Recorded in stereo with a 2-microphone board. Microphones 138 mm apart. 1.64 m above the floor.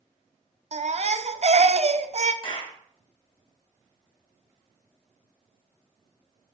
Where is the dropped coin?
No dropped coin in this recording.